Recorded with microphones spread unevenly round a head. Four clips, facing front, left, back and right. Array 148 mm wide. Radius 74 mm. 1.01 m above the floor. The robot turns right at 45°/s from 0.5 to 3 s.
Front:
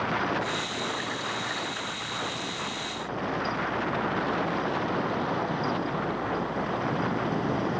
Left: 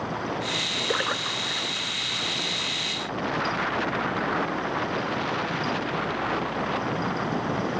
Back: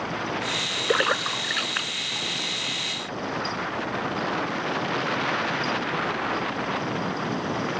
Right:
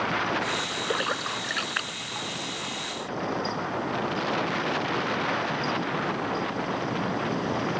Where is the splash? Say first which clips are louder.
Left 1 dB, back 8 dB; 175° left; by 2.3 s 120° right.